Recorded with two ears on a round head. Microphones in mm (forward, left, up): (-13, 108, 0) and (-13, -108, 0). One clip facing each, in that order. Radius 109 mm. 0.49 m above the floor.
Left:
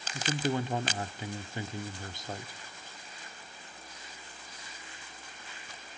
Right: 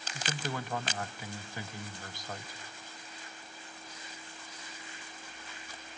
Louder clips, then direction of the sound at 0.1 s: Left 7 dB; 20° left (ahead or behind).